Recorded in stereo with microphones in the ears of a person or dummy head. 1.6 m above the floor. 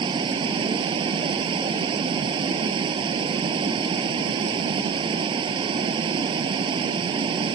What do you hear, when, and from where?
0.0 s running water: 25° right (ahead or behind)